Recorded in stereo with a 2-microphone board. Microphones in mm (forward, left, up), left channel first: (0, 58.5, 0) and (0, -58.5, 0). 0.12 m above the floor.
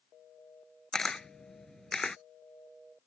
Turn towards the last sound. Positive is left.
turn(degrees=5)  # may be behind; listen again after turning